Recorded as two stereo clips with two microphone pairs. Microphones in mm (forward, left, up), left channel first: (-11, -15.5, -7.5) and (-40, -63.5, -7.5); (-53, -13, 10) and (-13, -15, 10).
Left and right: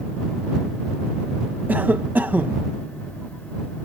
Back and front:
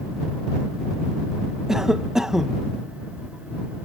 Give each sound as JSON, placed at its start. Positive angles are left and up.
{"t": 1.7, "sound": "a cough", "azimuth_deg": -80}